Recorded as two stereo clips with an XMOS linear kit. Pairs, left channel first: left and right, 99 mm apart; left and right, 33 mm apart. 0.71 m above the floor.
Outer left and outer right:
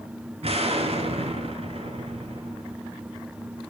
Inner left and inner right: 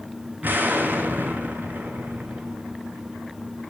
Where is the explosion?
80° right, 5 m.